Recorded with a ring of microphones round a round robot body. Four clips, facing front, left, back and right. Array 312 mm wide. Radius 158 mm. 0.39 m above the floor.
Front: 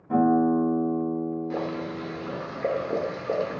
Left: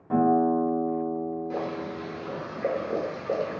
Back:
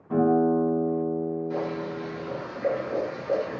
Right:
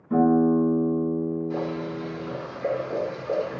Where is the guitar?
80° left, 2.0 m.